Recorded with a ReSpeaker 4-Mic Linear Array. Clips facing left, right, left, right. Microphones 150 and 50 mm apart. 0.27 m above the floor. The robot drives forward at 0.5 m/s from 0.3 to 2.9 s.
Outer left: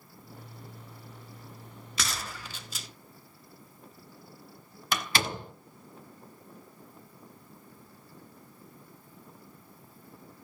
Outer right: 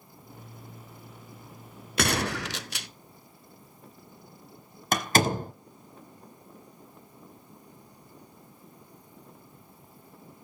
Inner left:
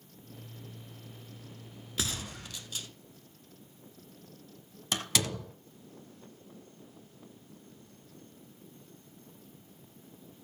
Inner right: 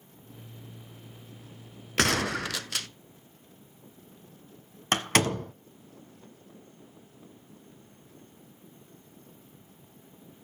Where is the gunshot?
60° right (ahead or behind), 0.5 m; by 2.9 s 65° right (ahead or behind), 0.5 m.